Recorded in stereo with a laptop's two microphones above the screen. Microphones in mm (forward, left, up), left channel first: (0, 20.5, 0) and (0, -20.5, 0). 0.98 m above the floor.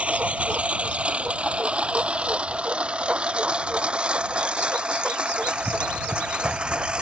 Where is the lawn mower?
30° right (ahead or behind); by 7.0 s 20° right (ahead or behind).